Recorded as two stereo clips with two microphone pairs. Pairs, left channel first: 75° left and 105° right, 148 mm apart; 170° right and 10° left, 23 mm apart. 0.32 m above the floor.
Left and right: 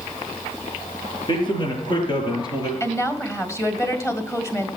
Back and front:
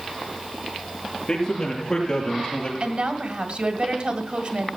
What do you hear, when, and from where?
1.3 s a man speaking: 130° left, 6 m; by 2.7 s 135° left, 5 m
2.8 s a woman speaking: 10° left, 1.7 m